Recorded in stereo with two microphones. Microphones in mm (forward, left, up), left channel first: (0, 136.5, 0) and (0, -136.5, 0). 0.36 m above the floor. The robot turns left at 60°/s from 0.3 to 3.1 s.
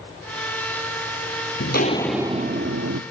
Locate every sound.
1.6 s footsteps: 50° left (ahead or behind), 0.6 m; by 3.0 s 70° right (ahead or behind), 0.9 m